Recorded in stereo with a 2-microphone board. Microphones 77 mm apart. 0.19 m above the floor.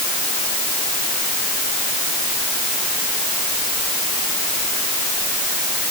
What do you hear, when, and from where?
Only background noise.